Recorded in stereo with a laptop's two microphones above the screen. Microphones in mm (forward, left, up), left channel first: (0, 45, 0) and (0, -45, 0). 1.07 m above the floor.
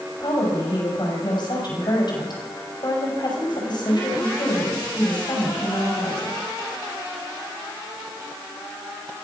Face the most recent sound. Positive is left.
turn(degrees=55)  # may be behind; listen again after turning